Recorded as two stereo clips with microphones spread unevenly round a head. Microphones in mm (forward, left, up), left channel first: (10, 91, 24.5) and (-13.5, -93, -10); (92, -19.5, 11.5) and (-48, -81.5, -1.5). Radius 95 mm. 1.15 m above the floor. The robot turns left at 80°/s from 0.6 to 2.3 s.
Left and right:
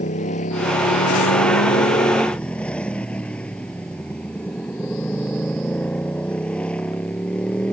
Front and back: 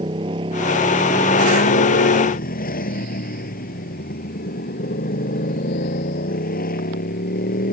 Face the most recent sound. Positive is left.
turn(degrees=0)